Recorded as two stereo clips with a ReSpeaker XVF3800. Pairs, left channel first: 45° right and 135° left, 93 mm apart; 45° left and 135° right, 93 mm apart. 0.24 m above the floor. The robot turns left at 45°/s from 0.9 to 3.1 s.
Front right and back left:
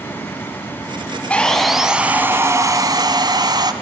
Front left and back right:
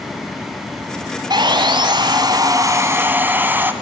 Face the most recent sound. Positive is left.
turn(degrees=160)